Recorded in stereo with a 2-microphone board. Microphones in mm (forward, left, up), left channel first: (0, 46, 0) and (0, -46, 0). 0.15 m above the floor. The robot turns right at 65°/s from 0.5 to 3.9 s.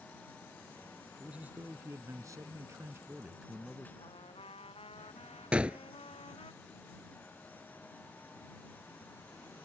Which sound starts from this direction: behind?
A man speaking, at 1.2 s.